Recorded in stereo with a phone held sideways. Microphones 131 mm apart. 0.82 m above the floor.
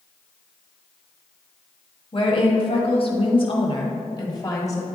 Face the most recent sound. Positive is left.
turn(degrees=20)  # may be behind; listen again after turning